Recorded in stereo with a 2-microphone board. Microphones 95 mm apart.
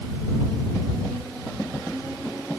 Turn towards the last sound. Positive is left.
No sound to turn to.